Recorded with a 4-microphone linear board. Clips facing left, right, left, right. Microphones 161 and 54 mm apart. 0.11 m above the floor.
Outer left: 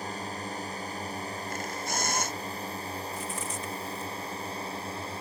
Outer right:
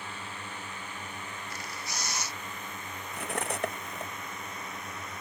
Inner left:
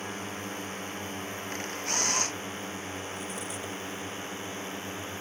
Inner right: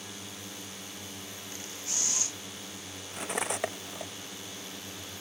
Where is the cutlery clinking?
60° right (ahead or behind).